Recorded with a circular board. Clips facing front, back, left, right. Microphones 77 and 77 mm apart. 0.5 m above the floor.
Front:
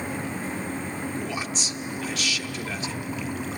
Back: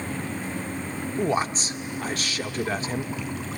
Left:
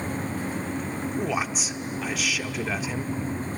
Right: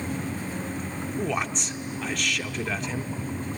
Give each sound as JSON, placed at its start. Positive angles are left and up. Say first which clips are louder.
{"t": 1.2, "sound": "a man speaking", "louder": "back 6 dB, right 1 dB", "azimuth_deg": 175, "distance_m": 1.0}